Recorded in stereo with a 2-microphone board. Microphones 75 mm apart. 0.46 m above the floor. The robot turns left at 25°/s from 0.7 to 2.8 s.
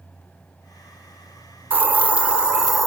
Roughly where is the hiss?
Right.